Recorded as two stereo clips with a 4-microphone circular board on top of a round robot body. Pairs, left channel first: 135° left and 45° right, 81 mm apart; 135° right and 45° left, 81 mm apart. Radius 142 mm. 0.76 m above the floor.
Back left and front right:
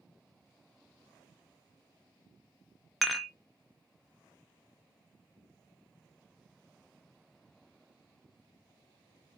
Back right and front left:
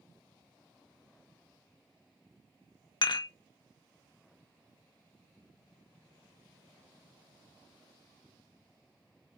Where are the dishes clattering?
135° right, 0.5 m.